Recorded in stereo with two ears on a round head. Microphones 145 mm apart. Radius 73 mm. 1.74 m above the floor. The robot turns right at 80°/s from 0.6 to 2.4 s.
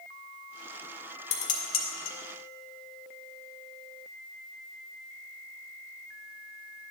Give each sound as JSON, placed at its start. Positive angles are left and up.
{"t": 1.3, "sound": "dishes clattering", "side_deg": 40, "distance_m": 1.9}